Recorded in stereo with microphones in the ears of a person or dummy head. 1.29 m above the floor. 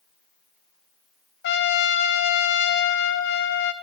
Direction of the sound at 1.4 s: 55° left (ahead or behind).